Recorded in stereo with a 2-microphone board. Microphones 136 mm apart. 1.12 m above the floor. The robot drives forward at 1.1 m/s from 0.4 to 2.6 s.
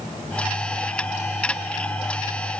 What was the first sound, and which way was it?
Only background noise.